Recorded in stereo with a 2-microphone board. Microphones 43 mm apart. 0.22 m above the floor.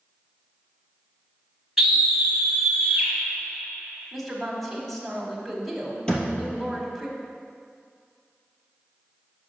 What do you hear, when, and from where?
1.8 s a scream: 5° right (ahead or behind), 1.3 m
4.1 s a woman speaking: centre (ahead or behind), 1.6 m
6.1 s a thud: 15° left (ahead or behind), 2.5 m